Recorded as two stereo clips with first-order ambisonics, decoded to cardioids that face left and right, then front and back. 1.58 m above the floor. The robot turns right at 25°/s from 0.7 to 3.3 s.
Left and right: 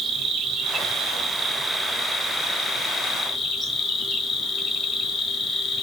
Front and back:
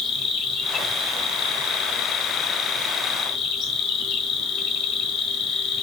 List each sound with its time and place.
0.0 s an insect: 55° right, 1.1 m; by 5.8 s 10° left, 1.1 m